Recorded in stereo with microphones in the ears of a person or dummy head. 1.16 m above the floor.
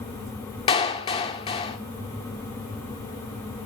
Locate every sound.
0.7 s a clap: 30° left (ahead or behind), 2.5 m